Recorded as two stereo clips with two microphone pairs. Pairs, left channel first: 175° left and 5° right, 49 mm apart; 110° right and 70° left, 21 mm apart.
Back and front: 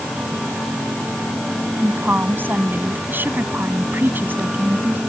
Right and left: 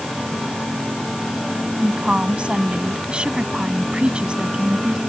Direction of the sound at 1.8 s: 40° left.